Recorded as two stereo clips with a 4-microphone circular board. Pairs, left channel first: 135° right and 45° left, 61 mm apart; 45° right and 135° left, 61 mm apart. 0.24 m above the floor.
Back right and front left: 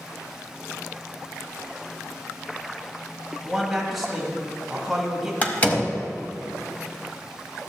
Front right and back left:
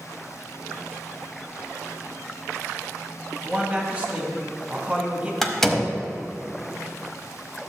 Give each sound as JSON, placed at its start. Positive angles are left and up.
{"t": 3.4, "sound": "a man speaking", "azimuth_deg": 125, "distance_m": 1.5}
{"t": 5.4, "sound": "a door slam", "azimuth_deg": -120, "distance_m": 0.8}